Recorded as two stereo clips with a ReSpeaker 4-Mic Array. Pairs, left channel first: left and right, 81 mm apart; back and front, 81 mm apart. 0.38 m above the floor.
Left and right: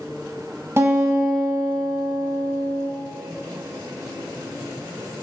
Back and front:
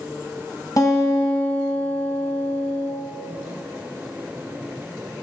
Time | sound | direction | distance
0.8 | a guitar | 145° right | 1.8 m